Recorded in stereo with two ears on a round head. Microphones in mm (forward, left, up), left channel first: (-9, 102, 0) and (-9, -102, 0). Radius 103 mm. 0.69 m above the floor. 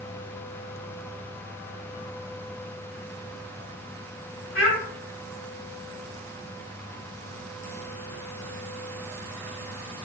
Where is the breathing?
No breathing in this recording.